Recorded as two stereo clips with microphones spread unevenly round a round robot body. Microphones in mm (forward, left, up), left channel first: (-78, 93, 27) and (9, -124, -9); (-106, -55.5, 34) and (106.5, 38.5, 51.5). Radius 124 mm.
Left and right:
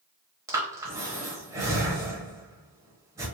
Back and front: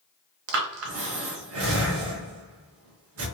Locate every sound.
0.5 s breathing: 5° left, 0.8 m